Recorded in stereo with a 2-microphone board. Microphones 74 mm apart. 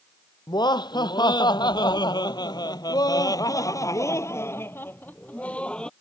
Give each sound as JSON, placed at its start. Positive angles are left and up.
{"t": 0.5, "sound": "laughter", "side_deg": 75}